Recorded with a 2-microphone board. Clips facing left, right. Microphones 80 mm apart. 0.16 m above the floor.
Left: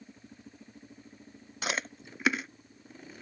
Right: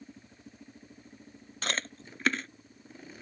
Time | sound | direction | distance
1.6 | chewing | 10° left (ahead or behind) | ?